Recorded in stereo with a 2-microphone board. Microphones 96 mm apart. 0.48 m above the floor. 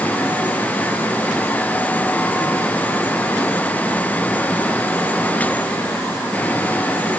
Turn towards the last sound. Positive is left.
No sound to turn to.